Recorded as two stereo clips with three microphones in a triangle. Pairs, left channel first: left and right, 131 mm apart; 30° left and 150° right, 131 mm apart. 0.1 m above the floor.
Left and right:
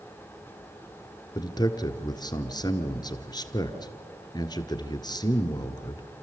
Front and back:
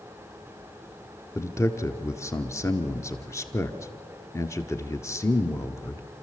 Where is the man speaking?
75° left, 1.2 m.